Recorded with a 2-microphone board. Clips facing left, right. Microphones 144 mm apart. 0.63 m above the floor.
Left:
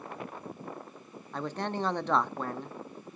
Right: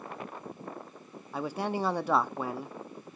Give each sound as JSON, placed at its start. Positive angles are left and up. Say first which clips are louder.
{"t": 1.3, "sound": "a man speaking", "louder": "right 2 dB", "side_deg": -10, "distance_m": 0.5}